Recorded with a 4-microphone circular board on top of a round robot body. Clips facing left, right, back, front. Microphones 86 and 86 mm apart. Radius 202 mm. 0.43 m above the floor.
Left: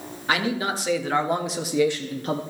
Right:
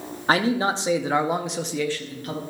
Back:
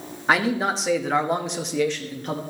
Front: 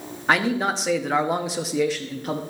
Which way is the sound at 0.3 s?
95° right.